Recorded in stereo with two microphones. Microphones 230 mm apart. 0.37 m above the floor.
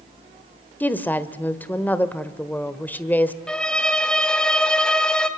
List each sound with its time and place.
0.8 s a woman speaking: 10° left (ahead or behind), 1.2 m
3.5 s a violin: 5° left (ahead or behind), 1.4 m